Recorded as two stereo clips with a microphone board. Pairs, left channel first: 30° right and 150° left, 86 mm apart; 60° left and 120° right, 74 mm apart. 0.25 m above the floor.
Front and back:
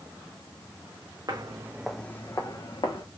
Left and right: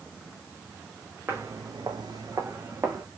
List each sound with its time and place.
1.3 s footsteps: 175° right, 0.8 m; by 3.0 s 65° right, 1.4 m